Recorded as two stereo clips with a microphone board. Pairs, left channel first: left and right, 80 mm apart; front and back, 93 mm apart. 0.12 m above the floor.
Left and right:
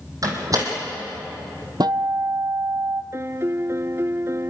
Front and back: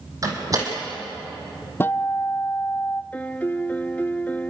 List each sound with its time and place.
0.2 s a door slam: 130° right, 4 m
1.8 s a guitar: 65° right, 0.6 m
3.1 s a piano: 65° right, 0.5 m